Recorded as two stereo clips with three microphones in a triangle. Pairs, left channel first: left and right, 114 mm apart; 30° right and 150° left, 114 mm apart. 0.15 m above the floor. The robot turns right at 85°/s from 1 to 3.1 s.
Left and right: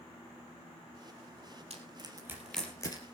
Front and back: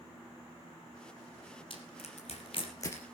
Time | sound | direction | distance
1.7 | crushing | 70° right | 3 m